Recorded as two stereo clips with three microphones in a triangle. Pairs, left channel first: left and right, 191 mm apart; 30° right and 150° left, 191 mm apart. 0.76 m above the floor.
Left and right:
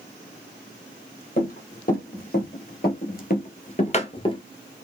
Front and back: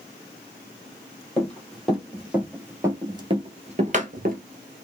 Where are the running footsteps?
55° left, 1.7 m; by 4.4 s 145° left, 1.0 m.